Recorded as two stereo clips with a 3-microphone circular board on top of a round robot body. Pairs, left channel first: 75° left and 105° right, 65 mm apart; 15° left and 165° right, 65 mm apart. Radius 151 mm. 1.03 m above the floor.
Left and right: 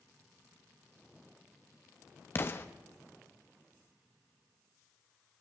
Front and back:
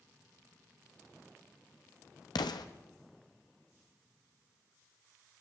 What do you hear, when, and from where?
2.4 s an explosion: 20° left, 0.9 m